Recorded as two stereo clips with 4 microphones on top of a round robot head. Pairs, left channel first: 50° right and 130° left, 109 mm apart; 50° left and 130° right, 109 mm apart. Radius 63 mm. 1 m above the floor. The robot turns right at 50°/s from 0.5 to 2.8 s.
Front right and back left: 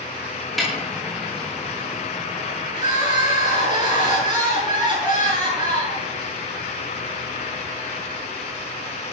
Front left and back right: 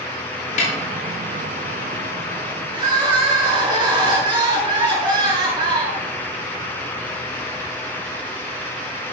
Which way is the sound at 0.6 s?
40° left.